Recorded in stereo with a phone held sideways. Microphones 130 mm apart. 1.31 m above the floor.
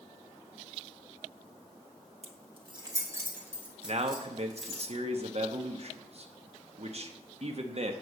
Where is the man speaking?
55° right (ahead or behind), 1.1 m.